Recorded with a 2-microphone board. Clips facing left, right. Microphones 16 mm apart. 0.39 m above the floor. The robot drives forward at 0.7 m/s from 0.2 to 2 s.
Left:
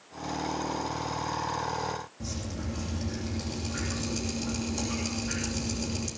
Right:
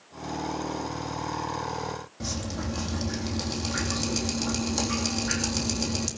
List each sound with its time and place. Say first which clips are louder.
2.2 s dripping: right 4 dB; 40° right (ahead or behind), 3 m